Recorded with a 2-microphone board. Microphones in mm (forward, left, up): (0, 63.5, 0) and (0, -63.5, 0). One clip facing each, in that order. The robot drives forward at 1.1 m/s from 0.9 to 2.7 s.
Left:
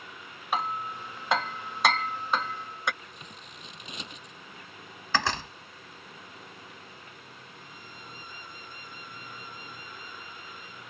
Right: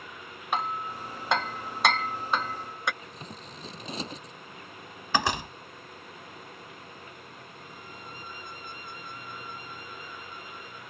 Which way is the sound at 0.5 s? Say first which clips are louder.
Even; centre (ahead or behind).